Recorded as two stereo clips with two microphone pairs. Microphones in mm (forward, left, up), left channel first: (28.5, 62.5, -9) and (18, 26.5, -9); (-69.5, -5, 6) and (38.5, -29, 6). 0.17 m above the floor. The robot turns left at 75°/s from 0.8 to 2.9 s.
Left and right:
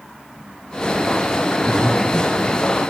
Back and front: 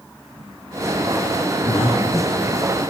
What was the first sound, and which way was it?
Breathing, 155° left.